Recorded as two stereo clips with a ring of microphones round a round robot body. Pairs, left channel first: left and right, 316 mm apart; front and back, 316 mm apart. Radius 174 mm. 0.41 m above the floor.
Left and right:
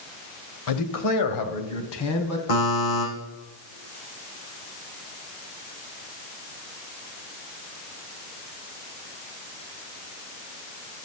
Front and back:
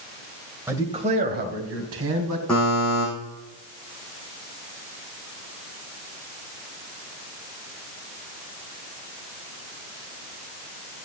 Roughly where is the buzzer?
Left.